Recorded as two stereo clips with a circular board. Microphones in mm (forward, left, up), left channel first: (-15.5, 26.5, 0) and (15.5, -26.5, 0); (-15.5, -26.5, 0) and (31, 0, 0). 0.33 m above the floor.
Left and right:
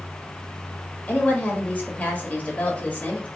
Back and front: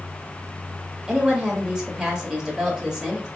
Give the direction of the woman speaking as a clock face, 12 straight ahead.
9 o'clock.